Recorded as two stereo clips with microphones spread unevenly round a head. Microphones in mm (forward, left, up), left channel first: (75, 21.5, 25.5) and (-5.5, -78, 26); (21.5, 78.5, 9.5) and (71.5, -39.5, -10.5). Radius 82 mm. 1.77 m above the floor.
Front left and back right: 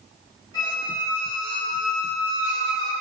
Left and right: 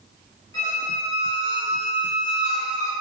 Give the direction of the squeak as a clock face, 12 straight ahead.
9 o'clock.